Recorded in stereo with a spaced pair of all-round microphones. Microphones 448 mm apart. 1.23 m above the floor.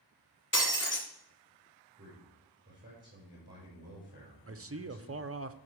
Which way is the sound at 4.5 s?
30° right (ahead or behind).